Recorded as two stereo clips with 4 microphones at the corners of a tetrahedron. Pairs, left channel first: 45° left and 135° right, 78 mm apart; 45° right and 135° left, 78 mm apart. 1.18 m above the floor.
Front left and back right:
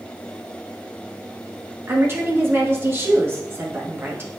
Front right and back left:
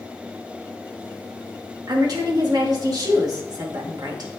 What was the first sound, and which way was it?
A woman speaking, 170° left.